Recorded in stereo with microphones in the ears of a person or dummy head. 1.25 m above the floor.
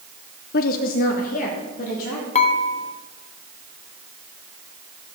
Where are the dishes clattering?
35° left (ahead or behind), 1.0 m.